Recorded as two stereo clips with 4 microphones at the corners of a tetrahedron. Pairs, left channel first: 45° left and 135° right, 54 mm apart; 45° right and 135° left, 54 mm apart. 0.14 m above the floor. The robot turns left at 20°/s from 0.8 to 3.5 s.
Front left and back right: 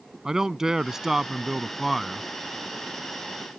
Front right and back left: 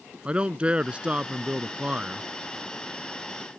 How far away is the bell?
I don't hear a bell.